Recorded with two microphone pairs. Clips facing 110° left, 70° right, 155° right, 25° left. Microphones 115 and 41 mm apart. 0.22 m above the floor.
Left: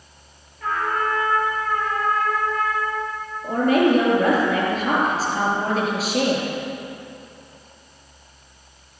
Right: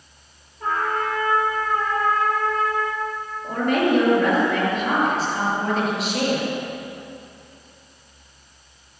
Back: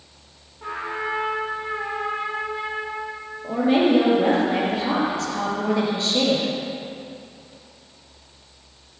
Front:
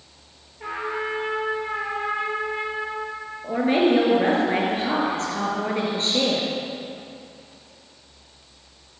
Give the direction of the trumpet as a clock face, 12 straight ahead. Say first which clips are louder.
Even, even; 12 o'clock.